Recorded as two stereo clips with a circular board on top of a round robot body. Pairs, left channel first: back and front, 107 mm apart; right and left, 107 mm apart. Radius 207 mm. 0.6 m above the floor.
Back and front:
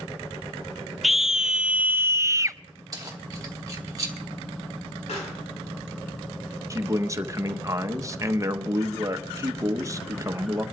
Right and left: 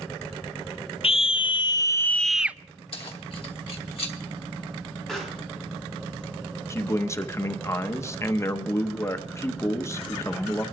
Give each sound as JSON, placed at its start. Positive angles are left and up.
{"t": 1.0, "sound": "a scream", "azimuth_deg": -90, "distance_m": 0.9}
{"t": 2.9, "sound": "keys jangling", "azimuth_deg": -60, "distance_m": 1.7}
{"t": 5.1, "sound": "a pop", "azimuth_deg": -175, "distance_m": 4.0}
{"t": 6.7, "sound": "a man speaking", "azimuth_deg": -45, "distance_m": 1.0}